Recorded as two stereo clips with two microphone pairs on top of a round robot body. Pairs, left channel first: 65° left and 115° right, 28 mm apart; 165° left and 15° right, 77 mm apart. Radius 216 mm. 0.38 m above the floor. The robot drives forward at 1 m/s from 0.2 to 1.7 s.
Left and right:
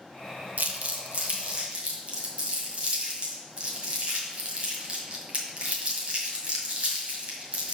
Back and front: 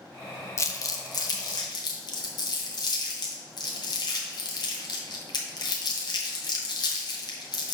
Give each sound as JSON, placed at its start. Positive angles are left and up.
{"t": 0.6, "sound": "crumpling", "azimuth_deg": -140, "distance_m": 0.9}